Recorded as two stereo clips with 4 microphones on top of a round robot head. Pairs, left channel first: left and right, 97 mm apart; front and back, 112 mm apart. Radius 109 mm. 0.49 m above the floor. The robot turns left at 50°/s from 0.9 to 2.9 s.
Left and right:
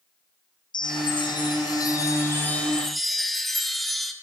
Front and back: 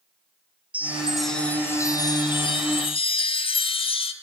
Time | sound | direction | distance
0.7 | a chime | 105° left | 0.6 m